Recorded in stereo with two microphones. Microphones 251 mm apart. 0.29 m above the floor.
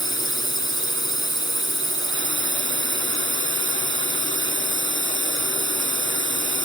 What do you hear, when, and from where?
0.0 s a drone: 55° right (ahead or behind)